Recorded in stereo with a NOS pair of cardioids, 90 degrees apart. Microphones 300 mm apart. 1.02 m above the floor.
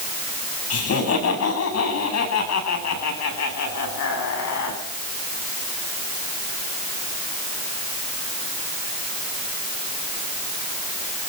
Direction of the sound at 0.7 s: 55° left.